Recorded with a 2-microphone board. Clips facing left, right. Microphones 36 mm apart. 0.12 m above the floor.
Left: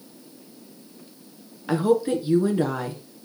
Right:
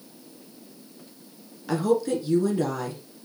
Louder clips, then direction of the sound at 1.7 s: Left 2 dB; 30° left (ahead or behind).